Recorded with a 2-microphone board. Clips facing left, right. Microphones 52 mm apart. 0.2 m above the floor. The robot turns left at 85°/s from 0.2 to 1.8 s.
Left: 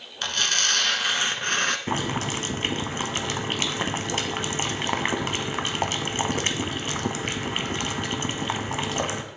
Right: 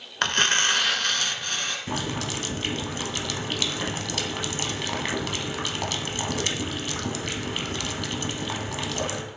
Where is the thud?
No thud in this recording.